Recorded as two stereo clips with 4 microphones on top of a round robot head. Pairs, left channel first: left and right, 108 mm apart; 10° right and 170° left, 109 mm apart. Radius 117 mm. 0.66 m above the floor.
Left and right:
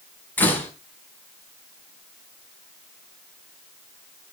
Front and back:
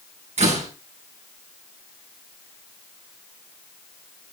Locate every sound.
0.4 s a door slam: 165° left, 4.5 m